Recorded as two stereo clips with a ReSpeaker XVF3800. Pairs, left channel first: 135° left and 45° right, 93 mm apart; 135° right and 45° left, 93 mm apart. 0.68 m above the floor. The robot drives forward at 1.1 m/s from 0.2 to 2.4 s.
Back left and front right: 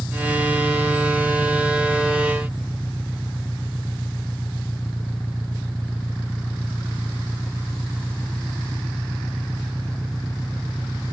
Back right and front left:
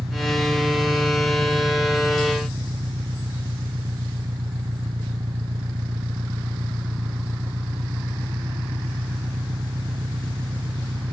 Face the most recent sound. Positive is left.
turn(degrees=65)